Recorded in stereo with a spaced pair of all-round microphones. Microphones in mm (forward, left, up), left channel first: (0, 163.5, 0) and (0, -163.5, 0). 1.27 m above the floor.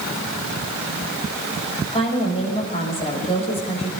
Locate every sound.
1.9 s a woman speaking: 20° left (ahead or behind), 7.5 m